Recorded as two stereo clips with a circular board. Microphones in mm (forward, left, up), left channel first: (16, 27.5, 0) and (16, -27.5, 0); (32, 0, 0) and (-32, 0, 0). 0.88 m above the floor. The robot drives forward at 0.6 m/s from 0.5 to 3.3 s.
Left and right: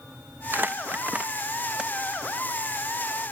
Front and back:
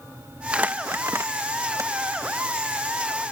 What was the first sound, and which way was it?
Crumpling, 115° right.